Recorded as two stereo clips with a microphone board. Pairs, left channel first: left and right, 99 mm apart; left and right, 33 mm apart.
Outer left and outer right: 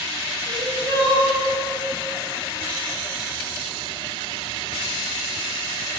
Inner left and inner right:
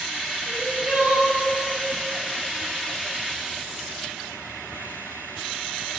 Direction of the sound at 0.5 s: 55° right (ahead or behind).